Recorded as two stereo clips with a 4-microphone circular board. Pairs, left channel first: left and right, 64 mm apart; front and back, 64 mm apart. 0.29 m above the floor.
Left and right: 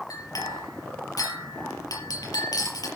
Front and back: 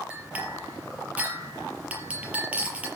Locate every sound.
0.1 s a clink: 110° left, 4.5 m